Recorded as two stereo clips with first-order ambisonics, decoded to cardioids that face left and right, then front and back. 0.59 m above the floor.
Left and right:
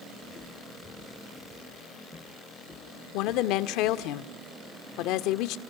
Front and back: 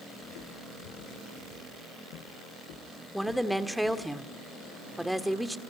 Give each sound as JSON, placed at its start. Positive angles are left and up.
{"t": 0.2, "sound": "footsteps", "azimuth_deg": 15, "distance_m": 2.5}
{"t": 3.1, "sound": "a woman speaking", "azimuth_deg": 90, "distance_m": 1.1}